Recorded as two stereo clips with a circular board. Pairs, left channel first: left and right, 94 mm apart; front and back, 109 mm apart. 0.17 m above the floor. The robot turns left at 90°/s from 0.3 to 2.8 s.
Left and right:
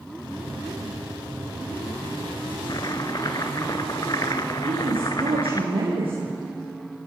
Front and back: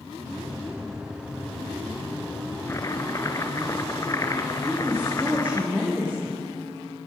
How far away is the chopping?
About 1.4 m.